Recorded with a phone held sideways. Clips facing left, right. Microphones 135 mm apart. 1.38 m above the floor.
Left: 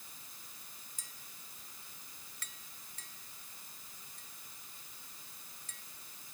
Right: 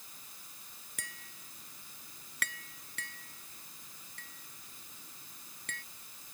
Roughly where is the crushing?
No crushing in this recording.